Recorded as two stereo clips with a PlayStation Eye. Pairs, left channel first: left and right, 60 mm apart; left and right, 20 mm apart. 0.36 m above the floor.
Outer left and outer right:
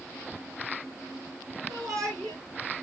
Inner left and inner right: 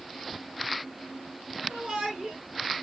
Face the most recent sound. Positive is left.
turn(degrees=-80)